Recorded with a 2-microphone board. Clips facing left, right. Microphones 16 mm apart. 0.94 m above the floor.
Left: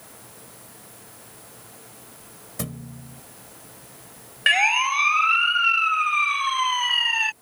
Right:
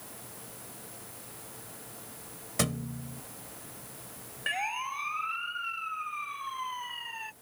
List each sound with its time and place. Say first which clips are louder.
2.6 s a thud: right 3 dB; 30° right (ahead or behind)
4.5 s a siren: left 14 dB; 60° left (ahead or behind); by 7.3 s 85° left